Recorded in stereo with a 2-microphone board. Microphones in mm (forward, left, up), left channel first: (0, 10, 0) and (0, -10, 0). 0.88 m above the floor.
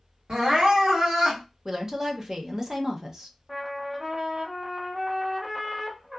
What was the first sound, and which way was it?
Crying, 60° right (ahead or behind).